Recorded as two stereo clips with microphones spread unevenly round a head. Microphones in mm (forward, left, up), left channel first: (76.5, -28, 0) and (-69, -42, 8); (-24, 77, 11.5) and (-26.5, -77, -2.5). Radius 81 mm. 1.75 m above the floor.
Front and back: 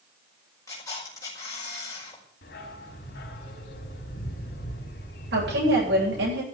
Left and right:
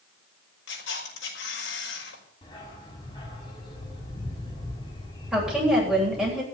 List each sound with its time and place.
0.7 s a camera shutter: 80° left, 5.5 m
2.4 s a dog barking: 25° left, 4 m
5.3 s a woman speaking: 175° right, 9.5 m